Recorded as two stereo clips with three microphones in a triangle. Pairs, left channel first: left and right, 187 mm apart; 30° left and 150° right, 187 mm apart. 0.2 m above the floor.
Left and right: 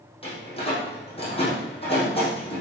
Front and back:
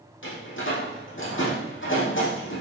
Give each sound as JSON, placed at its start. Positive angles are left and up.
{"t": 0.2, "sound": "a door slam", "azimuth_deg": 30, "distance_m": 5.5}